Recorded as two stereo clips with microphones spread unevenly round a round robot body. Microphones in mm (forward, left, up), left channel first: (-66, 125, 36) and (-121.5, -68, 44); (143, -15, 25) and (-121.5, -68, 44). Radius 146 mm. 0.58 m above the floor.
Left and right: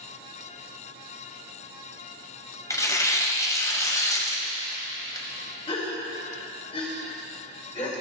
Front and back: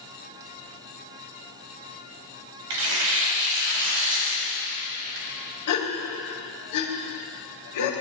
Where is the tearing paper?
150° left, 2 m.